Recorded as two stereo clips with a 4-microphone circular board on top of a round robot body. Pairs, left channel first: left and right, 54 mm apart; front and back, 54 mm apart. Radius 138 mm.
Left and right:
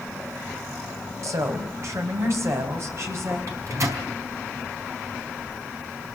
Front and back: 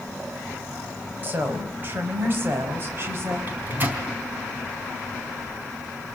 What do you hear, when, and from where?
1.2 s a woman speaking: 125° right, 5 m; by 3.4 s 130° right, 6 m
3.5 s a microwave: 120° right, 4 m